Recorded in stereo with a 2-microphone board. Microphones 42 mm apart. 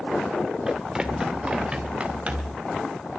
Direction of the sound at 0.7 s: 20° right (ahead or behind).